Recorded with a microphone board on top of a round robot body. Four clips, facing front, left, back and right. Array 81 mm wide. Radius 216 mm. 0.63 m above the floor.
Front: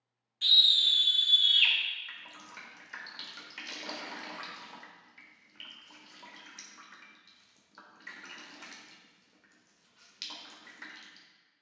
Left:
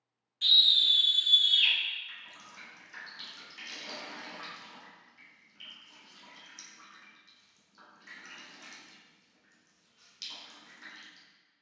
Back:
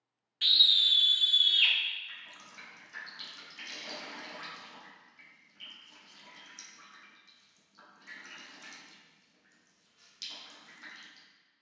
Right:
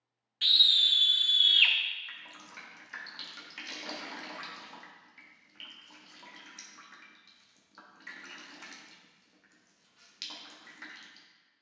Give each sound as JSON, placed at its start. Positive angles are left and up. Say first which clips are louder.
{"t": 0.4, "sound": "a scream", "louder": "even, even", "azimuth_deg": -130, "distance_m": 1.1}
{"t": 2.1, "sound": "dripping", "louder": "right 2 dB, front 3 dB", "azimuth_deg": -45, "distance_m": 1.8}